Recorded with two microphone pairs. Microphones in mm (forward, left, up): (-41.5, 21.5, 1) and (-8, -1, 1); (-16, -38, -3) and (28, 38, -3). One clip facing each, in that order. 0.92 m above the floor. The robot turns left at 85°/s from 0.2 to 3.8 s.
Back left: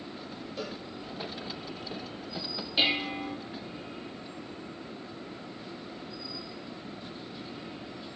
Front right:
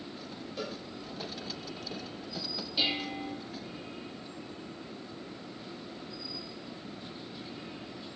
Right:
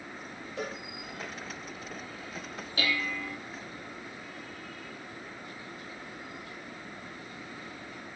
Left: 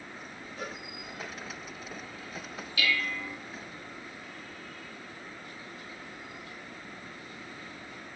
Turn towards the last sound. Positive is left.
turn(degrees=95)